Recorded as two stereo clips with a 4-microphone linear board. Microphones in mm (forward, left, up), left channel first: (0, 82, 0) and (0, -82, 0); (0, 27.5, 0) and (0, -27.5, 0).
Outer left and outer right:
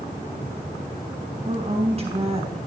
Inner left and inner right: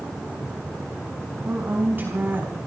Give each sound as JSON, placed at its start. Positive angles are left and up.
{"t": 1.4, "sound": "a woman speaking", "side_deg": -35, "distance_m": 4.5}